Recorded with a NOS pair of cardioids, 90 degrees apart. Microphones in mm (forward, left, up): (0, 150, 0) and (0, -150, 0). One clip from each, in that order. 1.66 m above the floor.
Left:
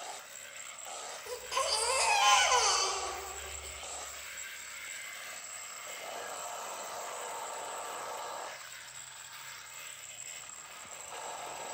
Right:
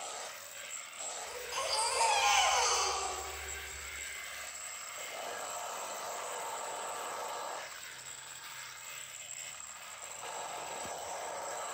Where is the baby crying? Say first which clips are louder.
Left 4 dB; 70° left, 1.7 m.